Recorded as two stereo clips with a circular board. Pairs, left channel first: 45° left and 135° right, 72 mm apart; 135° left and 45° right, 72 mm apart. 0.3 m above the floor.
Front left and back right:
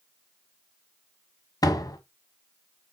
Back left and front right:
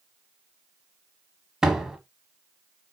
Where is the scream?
No scream in this recording.